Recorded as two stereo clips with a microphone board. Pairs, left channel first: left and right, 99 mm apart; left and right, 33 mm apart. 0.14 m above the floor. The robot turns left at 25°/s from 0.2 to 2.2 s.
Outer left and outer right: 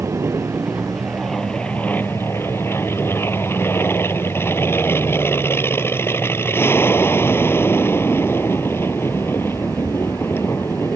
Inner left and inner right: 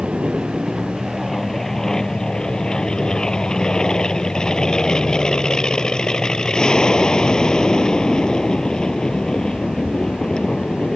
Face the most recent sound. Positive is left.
turn(degrees=155)